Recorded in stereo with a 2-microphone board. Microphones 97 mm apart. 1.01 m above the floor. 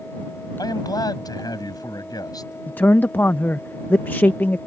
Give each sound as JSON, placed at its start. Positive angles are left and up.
{"t": 0.6, "sound": "a man speaking", "side_deg": 45}
{"t": 2.7, "sound": "a man speaking", "side_deg": 20}